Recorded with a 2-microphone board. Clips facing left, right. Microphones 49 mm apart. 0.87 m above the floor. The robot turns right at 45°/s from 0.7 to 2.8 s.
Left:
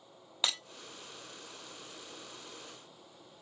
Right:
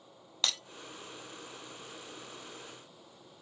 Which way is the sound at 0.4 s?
10° left (ahead or behind).